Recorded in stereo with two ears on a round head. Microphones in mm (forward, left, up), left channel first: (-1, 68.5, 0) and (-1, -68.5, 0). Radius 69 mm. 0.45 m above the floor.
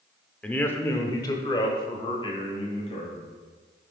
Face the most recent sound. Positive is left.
turn(degrees=40)  # may be behind; listen again after turning